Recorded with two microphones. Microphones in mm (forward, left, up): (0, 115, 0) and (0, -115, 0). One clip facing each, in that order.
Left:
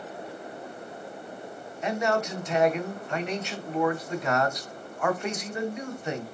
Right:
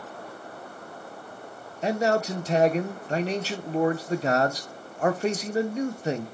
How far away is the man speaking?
About 0.9 m.